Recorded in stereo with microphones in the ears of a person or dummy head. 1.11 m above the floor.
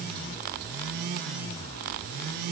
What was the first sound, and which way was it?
Only background noise.